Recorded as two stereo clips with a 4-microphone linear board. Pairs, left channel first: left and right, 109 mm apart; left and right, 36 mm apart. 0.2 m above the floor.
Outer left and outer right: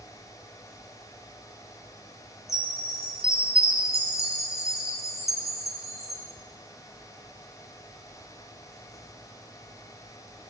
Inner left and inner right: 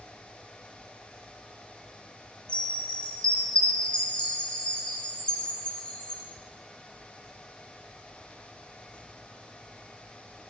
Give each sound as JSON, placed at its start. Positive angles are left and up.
{"t": 2.5, "sound": "a chime", "side_deg": 30, "distance_m": 1.6}